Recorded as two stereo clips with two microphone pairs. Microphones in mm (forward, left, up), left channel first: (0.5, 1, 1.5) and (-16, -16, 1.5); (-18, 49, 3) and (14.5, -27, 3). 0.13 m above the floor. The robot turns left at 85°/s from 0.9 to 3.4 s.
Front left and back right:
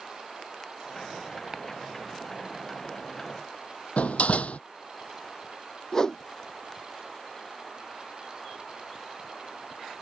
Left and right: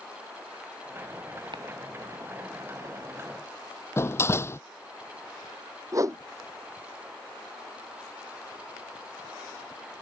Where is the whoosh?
20° right.